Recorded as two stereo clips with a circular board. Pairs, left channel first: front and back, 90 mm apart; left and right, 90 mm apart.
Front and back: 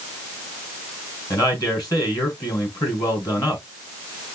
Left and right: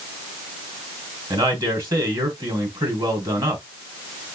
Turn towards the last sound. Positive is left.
turn(degrees=-45)